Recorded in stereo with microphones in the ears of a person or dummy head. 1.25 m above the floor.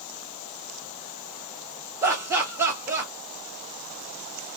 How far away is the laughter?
About 1.2 m.